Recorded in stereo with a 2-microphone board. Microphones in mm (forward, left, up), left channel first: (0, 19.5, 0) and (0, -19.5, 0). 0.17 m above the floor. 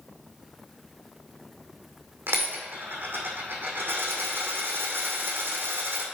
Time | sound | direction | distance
2.3 | a dropped coin | 65° right (ahead or behind) | 2.0 m